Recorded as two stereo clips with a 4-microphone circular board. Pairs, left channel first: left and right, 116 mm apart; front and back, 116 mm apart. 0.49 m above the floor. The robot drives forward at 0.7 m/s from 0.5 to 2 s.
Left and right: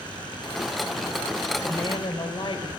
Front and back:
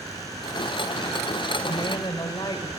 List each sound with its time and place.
1.6 s a woman speaking: 40° left, 1.7 m; by 2.7 s 50° left, 1.6 m